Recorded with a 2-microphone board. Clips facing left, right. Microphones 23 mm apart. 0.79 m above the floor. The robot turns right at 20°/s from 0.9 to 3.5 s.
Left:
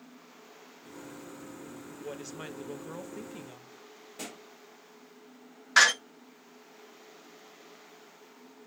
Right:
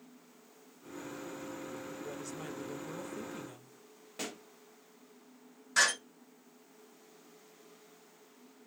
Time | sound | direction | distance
2.0 | a woman speaking | 120° left | 0.6 m
4.2 | a pop | 15° right (ahead or behind) | 0.9 m
5.8 | a door slam | 40° left (ahead or behind) | 0.7 m